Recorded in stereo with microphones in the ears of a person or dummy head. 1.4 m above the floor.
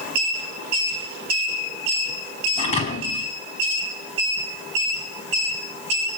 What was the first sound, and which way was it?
A thud, 35° left (ahead or behind).